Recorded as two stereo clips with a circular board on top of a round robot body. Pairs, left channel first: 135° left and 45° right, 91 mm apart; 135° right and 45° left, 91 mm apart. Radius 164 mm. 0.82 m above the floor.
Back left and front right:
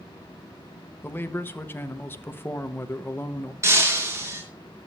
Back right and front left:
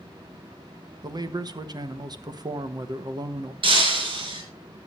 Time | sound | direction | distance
1.0 | a man speaking | 75° left | 1.6 m
3.6 | breaking glass | 15° left | 5 m